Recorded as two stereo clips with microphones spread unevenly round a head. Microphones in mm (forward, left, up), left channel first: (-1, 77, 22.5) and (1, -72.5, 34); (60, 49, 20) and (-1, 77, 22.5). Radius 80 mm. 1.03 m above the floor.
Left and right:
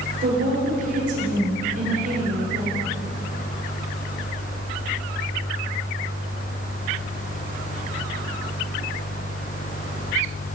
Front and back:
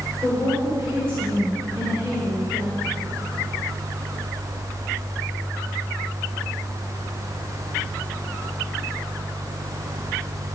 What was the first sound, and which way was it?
A woman speaking, 130° right.